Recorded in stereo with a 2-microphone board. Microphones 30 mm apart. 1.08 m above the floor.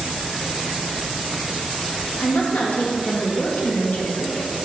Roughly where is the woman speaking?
Left.